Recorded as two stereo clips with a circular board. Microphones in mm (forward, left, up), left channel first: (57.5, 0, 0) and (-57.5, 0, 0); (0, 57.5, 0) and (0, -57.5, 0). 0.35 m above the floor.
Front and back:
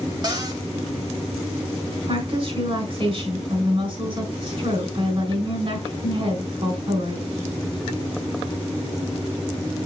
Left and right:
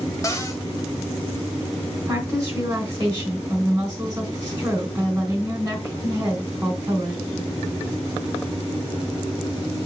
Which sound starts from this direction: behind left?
A cupboard door, at 0.2 s.